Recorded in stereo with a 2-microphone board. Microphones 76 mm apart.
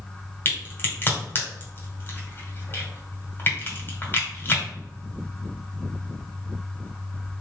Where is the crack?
30° left (ahead or behind), 1.6 m.